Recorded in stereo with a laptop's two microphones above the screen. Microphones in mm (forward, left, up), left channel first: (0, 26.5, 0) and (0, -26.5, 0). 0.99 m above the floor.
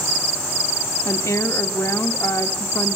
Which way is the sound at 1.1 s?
70° left (ahead or behind).